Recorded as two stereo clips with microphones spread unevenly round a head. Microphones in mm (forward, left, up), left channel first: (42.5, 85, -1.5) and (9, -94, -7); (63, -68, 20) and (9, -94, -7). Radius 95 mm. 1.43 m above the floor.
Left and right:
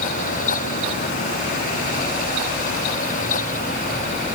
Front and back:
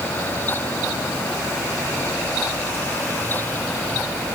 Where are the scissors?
I don't hear scissors.